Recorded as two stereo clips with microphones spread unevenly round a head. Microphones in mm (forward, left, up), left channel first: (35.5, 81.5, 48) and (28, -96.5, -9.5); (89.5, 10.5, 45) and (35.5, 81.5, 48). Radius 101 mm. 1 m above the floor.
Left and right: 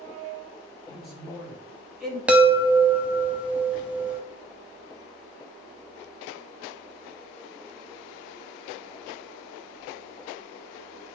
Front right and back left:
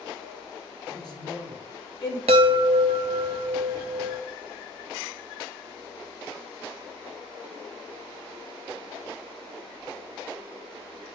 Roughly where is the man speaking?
Ahead.